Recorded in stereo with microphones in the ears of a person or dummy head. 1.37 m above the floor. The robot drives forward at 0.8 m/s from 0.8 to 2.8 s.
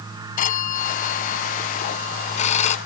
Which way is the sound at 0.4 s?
45° left (ahead or behind).